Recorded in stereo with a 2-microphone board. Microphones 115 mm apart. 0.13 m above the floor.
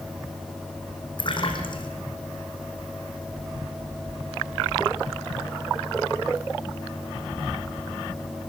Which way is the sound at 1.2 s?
45° left (ahead or behind).